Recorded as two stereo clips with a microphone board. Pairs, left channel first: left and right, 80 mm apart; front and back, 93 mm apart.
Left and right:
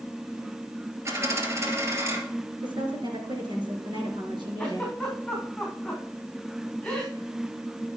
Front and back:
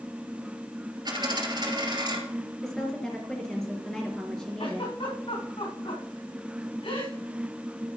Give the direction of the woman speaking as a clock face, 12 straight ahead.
3 o'clock.